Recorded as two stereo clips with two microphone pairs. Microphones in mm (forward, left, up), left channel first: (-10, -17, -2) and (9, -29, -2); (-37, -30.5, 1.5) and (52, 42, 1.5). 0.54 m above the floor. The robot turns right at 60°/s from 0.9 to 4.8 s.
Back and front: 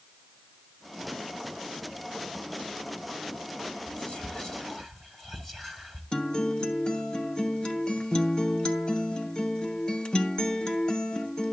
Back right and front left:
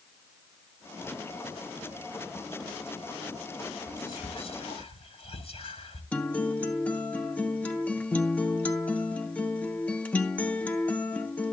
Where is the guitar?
145° left, 0.7 m.